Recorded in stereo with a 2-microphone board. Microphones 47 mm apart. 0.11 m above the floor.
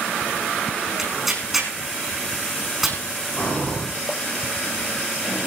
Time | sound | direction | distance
1.0 | tearing paper | 5° right (ahead or behind) | 4.5 m
3.4 | breathing | 30° left (ahead or behind) | 8 m